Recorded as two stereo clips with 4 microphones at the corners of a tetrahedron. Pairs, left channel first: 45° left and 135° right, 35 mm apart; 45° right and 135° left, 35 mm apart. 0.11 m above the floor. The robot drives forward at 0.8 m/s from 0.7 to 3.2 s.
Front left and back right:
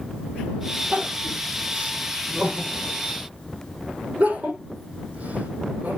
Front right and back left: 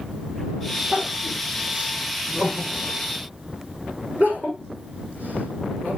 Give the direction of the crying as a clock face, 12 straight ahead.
6 o'clock.